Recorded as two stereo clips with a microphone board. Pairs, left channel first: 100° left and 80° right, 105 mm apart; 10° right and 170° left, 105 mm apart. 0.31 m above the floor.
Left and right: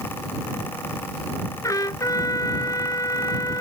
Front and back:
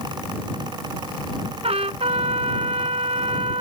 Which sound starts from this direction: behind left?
A trumpet, at 1.6 s.